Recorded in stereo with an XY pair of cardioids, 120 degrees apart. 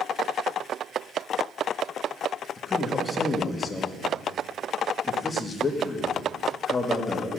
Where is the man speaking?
25° left, 1.4 m.